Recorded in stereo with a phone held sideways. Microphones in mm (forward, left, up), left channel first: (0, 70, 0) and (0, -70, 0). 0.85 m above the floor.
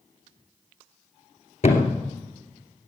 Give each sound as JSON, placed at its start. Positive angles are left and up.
{"t": 1.6, "sound": "a thud", "side_deg": 55, "distance_m": 2.5}